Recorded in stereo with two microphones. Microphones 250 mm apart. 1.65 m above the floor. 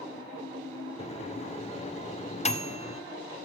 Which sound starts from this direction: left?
A microwave, at 1.0 s.